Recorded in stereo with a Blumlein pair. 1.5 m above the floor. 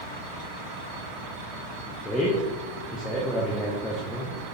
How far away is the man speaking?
About 0.7 m.